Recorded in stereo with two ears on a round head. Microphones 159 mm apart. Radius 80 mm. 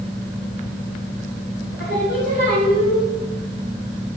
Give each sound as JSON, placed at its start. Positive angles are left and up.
{"t": 1.8, "sound": "singing", "side_deg": 60, "distance_m": 3.0}